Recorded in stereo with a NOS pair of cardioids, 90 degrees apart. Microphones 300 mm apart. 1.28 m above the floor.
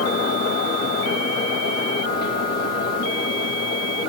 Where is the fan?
60° left, 2.5 m.